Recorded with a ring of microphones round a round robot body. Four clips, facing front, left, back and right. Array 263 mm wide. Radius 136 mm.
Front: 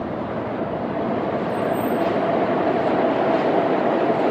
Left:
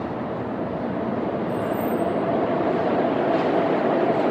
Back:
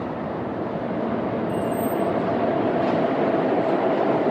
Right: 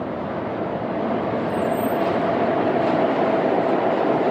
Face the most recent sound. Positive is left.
turn(degrees=-140)